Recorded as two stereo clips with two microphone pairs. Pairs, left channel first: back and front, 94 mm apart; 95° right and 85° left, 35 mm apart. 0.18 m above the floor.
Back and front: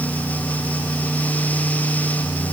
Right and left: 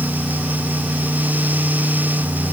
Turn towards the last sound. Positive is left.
No sound to turn to.